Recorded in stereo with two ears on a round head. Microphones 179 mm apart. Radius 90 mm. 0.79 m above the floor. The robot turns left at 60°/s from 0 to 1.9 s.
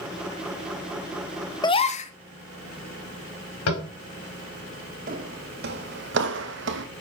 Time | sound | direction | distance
1.6 | a gasp | 20° left (ahead or behind) | 1.0 m
3.7 | tapping | 80° left | 4.5 m
5.1 | footsteps | 40° right (ahead or behind) | 1.8 m